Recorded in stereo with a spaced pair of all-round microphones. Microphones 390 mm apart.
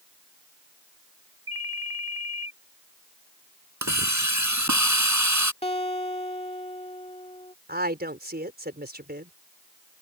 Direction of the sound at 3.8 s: 50° right (ahead or behind).